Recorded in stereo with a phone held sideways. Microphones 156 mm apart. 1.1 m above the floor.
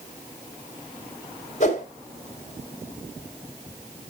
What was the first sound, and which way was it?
A whoosh, 50° left (ahead or behind).